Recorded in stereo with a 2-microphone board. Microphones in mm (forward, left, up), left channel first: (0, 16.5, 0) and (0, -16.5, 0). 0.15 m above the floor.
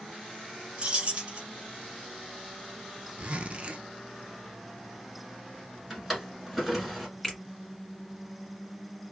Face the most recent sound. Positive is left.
turn(degrees=15)  # may be behind; listen again after turning